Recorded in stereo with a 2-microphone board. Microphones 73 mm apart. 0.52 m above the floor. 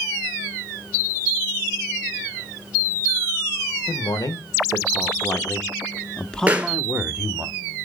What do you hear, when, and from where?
3.9 s a man speaking: 60° left (ahead or behind), 1.5 m; by 7.5 s 25° right (ahead or behind), 0.9 m
6.5 s a pop: 20° right (ahead or behind), 1.9 m